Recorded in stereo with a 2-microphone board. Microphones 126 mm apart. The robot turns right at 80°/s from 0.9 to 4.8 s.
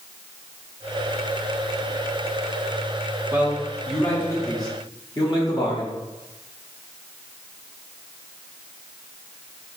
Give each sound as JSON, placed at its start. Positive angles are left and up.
{"t": 3.3, "sound": "a man speaking", "azimuth_deg": -40, "distance_m": 1.1}